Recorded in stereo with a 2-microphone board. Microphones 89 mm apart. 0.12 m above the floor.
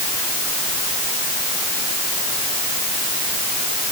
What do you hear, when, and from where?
Only background noise.